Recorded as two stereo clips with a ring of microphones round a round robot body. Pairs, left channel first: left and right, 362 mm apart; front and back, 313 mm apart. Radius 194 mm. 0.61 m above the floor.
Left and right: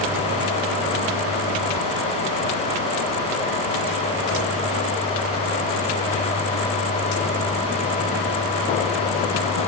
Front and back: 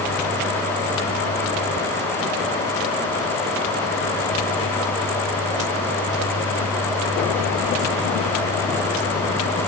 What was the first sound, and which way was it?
Only background noise.